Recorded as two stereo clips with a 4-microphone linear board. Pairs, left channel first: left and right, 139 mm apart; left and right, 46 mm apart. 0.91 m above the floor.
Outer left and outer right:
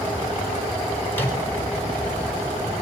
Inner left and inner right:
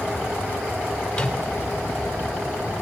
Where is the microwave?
15° left (ahead or behind), 4.5 m.